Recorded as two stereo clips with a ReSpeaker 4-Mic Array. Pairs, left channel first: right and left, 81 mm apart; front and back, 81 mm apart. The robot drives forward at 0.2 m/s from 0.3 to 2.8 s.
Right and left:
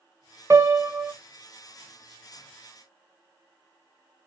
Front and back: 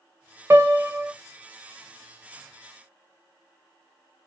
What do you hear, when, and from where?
0.5 s a piano: 130° left, 0.5 m; by 1.1 s 140° left, 0.6 m